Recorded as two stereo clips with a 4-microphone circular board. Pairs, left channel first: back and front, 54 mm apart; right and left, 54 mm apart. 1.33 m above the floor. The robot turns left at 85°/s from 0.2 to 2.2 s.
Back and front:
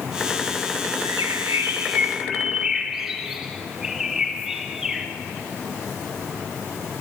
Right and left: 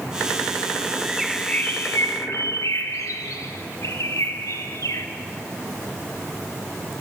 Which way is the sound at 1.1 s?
15° left.